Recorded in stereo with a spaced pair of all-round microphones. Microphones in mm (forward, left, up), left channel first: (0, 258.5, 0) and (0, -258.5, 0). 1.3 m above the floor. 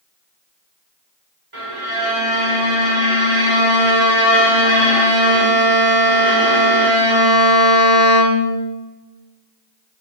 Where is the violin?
65° right (ahead or behind), 3 m.